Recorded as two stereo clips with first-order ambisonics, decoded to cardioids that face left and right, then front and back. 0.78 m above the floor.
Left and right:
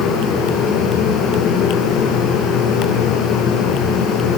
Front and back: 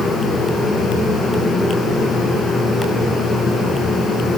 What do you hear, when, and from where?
Only background noise.